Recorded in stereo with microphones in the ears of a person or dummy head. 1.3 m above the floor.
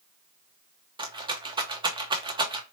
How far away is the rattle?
About 0.7 m.